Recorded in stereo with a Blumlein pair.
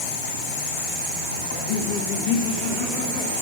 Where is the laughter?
60° left, 1.8 m; by 3.3 s 40° left, 3 m.